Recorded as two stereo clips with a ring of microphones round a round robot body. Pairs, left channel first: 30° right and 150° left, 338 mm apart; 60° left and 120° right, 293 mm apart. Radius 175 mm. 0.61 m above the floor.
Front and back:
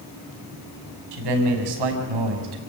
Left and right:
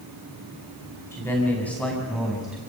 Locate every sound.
1.1 s a man speaking: 145° left, 5.5 m; by 2.6 s 150° left, 5 m